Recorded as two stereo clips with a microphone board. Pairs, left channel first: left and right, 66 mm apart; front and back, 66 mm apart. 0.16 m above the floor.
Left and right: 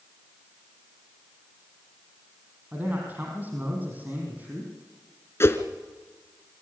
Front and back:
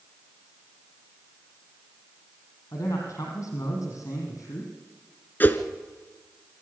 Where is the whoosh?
50° left, 1.4 m.